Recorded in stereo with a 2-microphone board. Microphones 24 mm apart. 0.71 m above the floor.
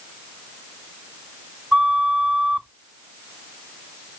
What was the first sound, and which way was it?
A flute, 45° right (ahead or behind).